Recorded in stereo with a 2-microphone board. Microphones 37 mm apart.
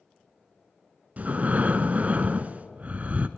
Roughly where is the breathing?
Right.